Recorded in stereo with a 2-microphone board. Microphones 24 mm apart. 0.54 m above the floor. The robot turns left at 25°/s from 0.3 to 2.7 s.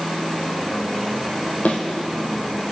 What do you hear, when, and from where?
1.6 s a thud: 75° left (ahead or behind), 1.6 m